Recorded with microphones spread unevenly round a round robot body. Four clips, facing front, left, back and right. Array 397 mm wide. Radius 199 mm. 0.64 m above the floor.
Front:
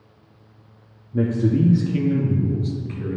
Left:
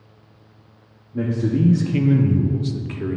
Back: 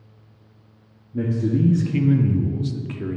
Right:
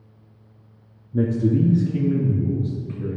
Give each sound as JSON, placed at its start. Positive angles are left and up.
{"t": 1.1, "sound": "a man speaking", "azimuth_deg": -65, "distance_m": 0.6}